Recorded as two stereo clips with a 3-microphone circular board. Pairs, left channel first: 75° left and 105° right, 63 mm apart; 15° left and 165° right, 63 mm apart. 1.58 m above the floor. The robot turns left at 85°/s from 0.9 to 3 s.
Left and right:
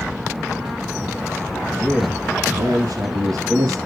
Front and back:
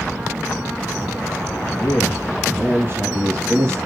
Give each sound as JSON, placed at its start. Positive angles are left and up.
{"t": 1.8, "sound": "a man speaking", "azimuth_deg": -20, "distance_m": 3.0}